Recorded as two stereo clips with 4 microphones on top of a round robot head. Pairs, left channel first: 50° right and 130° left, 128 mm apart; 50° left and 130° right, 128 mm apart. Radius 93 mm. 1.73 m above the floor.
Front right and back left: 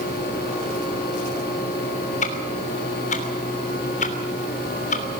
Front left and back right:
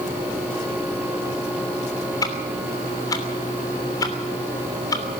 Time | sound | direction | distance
2.2 | ticking | 15° right | 3 m